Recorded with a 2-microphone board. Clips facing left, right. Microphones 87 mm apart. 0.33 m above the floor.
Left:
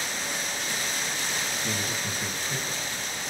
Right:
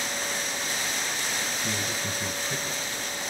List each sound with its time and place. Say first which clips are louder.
1.6 s a man speaking: even; 20° right (ahead or behind), 1.8 m